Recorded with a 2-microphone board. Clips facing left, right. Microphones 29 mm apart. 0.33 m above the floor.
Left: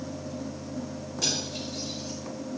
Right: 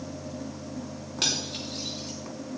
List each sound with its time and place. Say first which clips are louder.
1.2 s cutlery clinking: right 2 dB; 60° right (ahead or behind), 2.5 m